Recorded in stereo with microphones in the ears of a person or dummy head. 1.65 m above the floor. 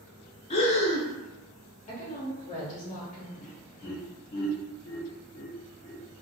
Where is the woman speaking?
35° left (ahead or behind), 0.8 m.